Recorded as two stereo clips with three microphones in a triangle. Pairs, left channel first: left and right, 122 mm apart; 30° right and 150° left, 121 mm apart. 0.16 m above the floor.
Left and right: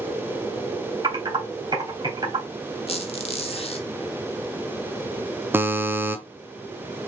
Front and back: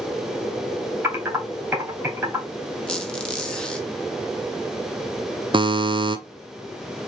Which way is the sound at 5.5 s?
160° right.